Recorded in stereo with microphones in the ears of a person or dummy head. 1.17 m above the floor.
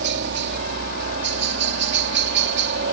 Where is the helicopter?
60° right (ahead or behind).